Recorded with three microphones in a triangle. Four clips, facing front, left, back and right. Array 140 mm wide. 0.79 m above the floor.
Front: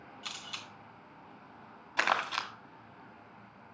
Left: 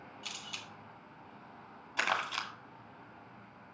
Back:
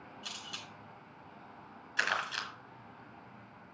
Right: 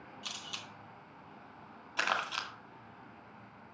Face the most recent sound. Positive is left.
turn(degrees=-5)